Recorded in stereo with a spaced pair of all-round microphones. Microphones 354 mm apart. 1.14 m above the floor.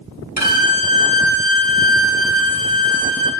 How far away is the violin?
About 1.3 m.